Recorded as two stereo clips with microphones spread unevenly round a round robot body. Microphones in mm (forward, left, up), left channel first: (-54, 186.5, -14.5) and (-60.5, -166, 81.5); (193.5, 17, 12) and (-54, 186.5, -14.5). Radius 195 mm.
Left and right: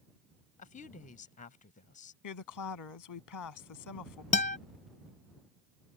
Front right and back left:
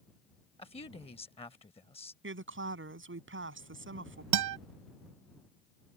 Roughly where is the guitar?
Behind left.